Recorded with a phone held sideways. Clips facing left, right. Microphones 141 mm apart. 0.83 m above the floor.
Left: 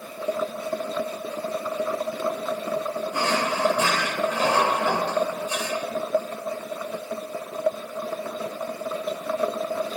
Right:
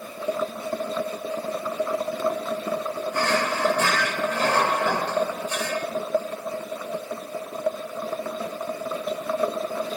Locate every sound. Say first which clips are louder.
3.1 s a drawer: right 1 dB; 15° left (ahead or behind), 1.1 m